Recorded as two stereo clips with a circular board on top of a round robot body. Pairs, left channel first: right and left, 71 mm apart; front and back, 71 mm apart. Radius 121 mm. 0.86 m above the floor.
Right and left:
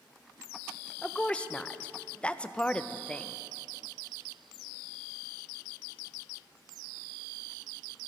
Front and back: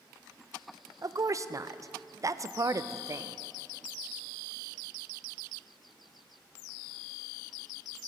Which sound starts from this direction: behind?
A woman speaking, at 1.0 s.